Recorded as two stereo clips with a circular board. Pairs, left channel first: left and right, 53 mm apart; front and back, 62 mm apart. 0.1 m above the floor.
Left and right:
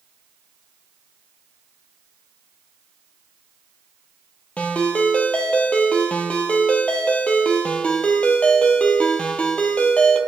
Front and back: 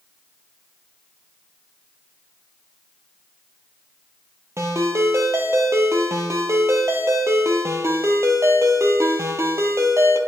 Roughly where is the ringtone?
Behind left.